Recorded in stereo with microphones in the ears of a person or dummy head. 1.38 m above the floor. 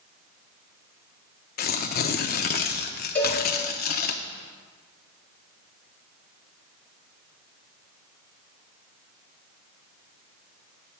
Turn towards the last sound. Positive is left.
turn(degrees=10)  # may be behind; listen again after turning